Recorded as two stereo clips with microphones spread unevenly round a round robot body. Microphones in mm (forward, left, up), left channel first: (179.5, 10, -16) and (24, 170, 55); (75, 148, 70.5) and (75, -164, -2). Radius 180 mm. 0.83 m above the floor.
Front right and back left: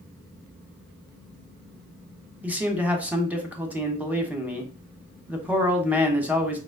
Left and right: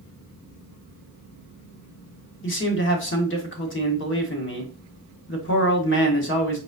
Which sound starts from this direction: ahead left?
A man speaking, at 2.4 s.